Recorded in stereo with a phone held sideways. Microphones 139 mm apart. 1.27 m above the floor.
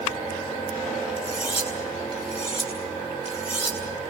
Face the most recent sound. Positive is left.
turn(degrees=40)  # may be behind; listen again after turning